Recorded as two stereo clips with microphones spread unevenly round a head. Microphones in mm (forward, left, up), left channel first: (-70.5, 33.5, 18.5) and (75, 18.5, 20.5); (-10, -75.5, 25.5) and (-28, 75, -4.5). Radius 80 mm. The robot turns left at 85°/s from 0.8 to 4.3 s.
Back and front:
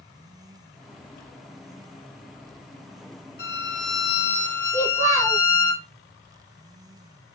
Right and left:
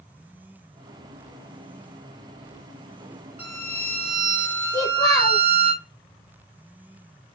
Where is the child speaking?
55° right, 1.0 m.